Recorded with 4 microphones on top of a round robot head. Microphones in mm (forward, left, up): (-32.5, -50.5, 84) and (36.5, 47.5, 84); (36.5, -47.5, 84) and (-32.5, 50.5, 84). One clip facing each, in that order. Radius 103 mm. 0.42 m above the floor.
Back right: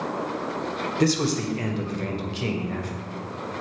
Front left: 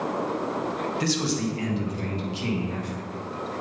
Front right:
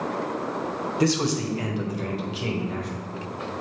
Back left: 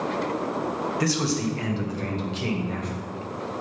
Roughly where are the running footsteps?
I don't hear running footsteps.